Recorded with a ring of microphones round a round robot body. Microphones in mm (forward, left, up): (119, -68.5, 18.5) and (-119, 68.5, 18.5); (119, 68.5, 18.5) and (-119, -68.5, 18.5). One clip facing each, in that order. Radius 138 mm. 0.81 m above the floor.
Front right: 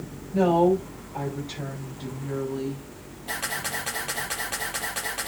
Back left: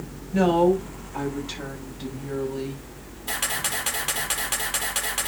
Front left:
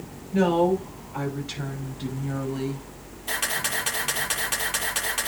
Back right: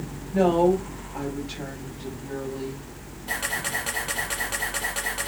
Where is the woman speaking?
95° left, 5.5 m; by 2.9 s 75° left, 6 m.